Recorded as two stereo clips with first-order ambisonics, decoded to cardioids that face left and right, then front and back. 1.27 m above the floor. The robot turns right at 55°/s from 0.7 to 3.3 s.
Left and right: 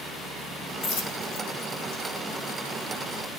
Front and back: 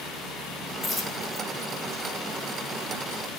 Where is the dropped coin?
60° left, 3.5 m; by 2.0 s 125° left, 3.5 m.